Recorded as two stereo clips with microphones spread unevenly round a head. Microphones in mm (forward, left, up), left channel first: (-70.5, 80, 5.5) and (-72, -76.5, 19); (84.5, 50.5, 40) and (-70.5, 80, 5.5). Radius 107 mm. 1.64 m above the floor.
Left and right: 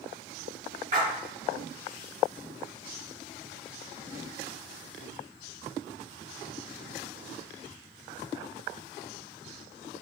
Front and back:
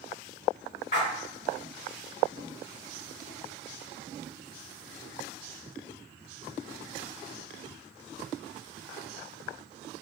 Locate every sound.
0.9 s a splash: 35° right, 2 m